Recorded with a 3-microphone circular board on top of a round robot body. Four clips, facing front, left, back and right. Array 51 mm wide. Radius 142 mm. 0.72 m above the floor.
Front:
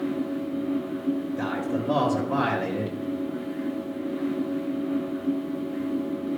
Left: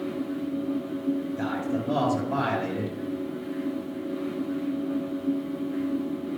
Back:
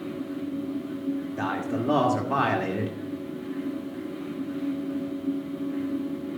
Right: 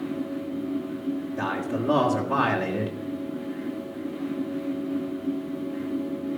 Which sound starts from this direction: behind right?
A man speaking, at 1.4 s.